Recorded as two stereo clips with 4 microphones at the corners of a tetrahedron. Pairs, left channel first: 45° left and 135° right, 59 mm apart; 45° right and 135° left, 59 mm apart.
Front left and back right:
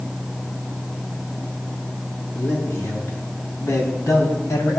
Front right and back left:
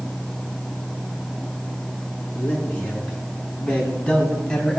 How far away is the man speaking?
About 4.5 m.